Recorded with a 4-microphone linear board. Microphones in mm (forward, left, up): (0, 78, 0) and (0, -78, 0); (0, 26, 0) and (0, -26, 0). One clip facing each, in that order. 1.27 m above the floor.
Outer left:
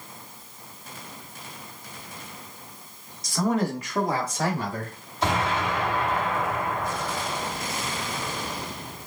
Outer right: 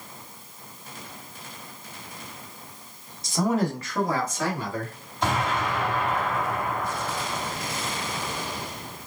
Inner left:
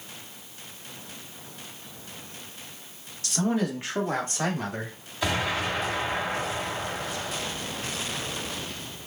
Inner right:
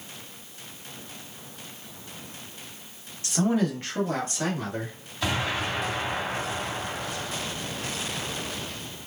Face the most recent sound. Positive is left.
turn(degrees=5)  # may be behind; listen again after turning